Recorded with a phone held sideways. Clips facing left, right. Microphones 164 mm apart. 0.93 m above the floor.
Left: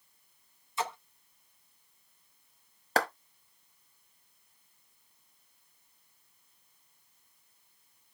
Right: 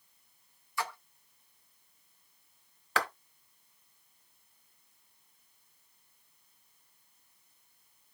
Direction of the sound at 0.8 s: 20° left (ahead or behind).